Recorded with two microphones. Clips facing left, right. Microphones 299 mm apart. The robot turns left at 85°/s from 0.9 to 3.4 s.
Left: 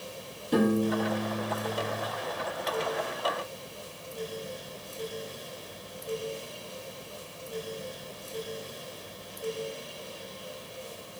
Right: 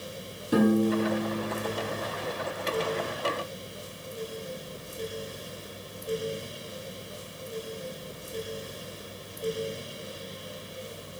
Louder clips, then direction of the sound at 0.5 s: Right 2 dB; 165° right.